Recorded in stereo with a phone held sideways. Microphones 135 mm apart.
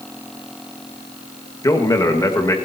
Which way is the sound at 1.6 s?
25° left (ahead or behind).